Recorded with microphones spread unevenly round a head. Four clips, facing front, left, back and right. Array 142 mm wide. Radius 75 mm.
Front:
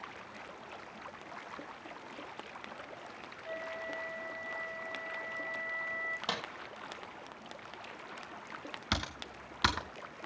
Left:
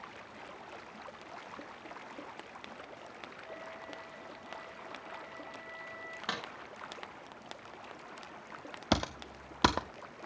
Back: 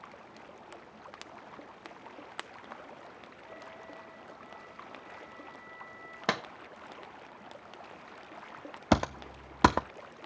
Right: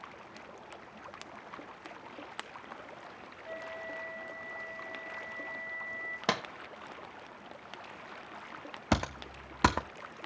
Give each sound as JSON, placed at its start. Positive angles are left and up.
{"t": 3.5, "sound": "a flute", "azimuth_deg": -25, "distance_m": 2.5}
{"t": 6.3, "sound": "a clap", "azimuth_deg": -140, "distance_m": 1.3}
{"t": 8.9, "sound": "typing on a keyboard", "azimuth_deg": 175, "distance_m": 0.6}